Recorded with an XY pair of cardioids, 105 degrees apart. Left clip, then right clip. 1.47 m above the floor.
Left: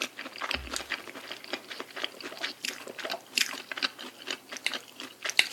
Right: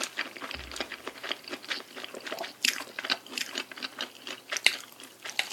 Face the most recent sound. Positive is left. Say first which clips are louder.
# even
turn(degrees=20)